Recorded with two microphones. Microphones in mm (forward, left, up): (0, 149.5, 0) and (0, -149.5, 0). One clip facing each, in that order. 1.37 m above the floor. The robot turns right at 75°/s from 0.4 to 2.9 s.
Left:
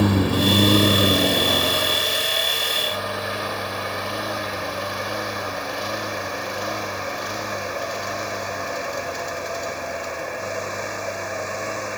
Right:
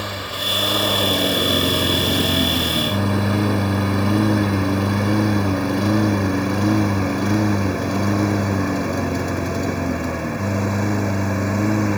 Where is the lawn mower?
60° left (ahead or behind); by 12.0 s 65° right (ahead or behind).